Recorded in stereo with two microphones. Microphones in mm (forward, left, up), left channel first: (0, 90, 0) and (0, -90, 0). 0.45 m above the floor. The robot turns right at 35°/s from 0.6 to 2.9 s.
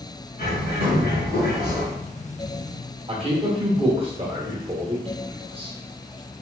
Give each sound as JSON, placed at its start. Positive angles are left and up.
{"t": 0.4, "sound": "a bird", "azimuth_deg": 70, "distance_m": 1.8}
{"t": 3.1, "sound": "a man speaking", "side_deg": -30, "distance_m": 1.1}